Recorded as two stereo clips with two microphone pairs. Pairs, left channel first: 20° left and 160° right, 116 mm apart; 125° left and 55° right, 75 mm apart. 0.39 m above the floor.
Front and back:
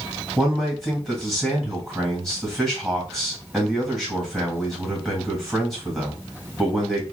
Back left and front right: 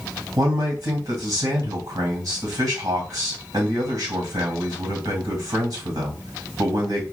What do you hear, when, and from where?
0.4 s a man speaking: 70° right, 1.7 m